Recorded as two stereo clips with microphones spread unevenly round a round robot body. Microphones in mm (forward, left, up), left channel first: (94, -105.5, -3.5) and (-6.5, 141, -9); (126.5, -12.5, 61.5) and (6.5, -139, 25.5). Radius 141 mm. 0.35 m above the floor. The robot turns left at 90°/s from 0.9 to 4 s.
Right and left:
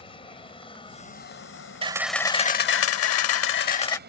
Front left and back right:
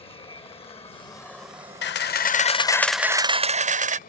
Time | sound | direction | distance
0.0 | an aircraft | 10° right | ?
1.8 | a camera shutter | 50° left | ?